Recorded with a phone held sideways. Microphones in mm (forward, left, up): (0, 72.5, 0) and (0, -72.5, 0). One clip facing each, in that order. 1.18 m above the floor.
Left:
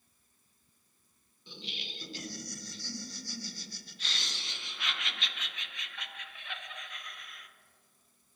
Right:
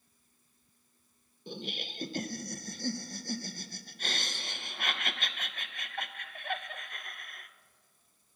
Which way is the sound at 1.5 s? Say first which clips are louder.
Right 7 dB; 50° right (ahead or behind).